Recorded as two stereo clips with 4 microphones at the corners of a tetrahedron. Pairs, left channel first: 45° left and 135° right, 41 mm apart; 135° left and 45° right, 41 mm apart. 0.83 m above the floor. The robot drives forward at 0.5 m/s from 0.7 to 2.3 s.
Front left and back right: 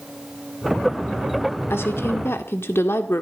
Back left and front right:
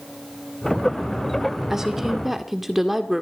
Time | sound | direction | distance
1.7 | a woman speaking | 35° left | 1.9 m